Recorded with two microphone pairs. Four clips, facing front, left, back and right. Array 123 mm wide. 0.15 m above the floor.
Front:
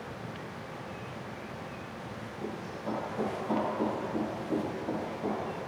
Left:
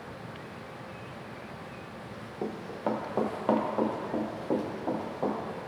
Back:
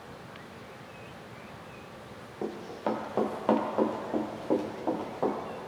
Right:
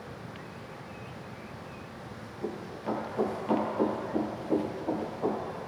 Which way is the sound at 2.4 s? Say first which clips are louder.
Left 3 dB, back 5 dB; 125° left.